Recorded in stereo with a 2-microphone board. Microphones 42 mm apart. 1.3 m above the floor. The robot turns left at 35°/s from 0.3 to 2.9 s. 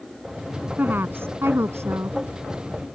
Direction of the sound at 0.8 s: 45° right.